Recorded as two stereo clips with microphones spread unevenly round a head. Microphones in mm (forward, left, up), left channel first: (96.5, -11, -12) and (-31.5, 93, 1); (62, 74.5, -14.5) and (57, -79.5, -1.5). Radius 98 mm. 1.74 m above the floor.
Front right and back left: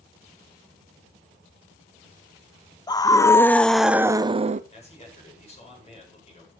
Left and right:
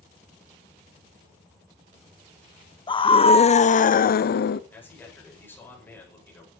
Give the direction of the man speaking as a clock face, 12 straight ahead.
12 o'clock.